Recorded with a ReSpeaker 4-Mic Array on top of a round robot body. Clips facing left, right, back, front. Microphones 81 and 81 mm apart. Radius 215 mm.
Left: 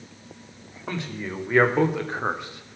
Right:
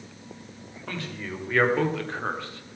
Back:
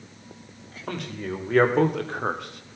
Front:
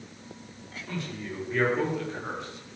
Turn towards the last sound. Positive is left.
turn(degrees=160)